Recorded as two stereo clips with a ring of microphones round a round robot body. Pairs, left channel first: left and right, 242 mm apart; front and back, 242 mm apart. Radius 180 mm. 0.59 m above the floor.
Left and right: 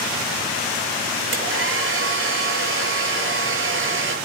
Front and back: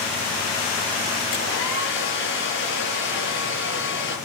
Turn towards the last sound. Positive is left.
turn(degrees=-55)